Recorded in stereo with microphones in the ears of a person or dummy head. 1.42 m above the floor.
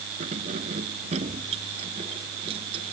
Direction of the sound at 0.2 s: 35° right (ahead or behind).